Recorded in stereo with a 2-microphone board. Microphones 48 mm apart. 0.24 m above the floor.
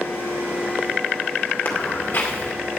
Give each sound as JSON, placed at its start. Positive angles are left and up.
{"t": 1.6, "sound": "footsteps", "side_deg": 45, "distance_m": 2.0}